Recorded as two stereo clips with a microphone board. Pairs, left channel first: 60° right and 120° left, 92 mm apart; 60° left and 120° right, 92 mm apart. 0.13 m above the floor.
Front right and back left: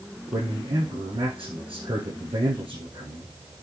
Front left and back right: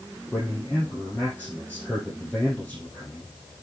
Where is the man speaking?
135° left, 4.5 m.